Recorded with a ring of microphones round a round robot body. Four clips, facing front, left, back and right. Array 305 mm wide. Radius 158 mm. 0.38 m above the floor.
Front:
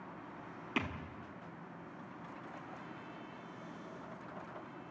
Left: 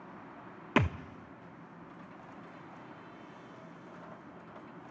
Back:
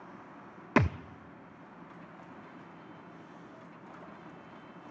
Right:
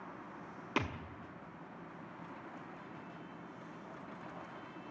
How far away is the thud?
About 0.6 m.